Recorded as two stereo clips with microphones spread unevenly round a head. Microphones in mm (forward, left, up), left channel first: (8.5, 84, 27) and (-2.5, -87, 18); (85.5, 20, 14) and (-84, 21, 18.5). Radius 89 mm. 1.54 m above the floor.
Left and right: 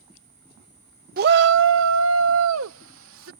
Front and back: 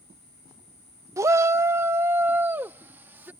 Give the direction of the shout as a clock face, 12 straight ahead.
4 o'clock.